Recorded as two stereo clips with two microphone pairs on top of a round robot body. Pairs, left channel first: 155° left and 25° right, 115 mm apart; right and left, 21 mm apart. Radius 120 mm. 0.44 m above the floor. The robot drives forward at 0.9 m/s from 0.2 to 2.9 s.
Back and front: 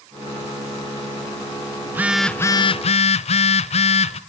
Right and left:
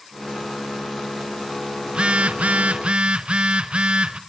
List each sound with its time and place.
1.9 s a phone buzzing: 45° left, 0.8 m; by 4.2 s 125° left, 0.7 m